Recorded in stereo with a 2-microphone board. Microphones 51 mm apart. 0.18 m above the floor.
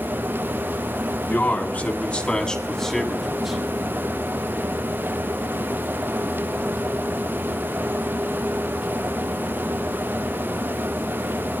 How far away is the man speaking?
About 1.9 m.